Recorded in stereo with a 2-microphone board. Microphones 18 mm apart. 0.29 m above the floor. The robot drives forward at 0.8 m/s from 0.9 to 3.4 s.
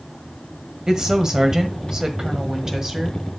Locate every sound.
0.9 s a woman speaking: 35° right (ahead or behind), 1.6 m; by 3.2 s 25° right (ahead or behind), 2 m